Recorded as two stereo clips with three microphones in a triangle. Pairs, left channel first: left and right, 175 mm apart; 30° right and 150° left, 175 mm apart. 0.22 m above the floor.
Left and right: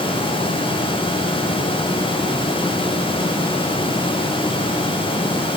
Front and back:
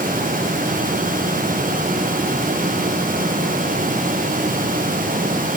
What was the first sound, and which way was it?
Only background noise.